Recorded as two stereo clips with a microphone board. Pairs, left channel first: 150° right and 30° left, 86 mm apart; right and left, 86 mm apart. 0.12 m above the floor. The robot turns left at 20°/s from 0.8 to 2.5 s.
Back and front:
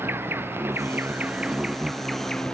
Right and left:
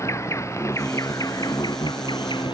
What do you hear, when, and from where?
0.0 s an insect: 35° right; by 2.5 s 70° right